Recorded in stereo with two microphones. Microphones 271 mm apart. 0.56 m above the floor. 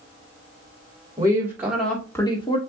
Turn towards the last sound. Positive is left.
turn(degrees=20)  # may be behind; listen again after turning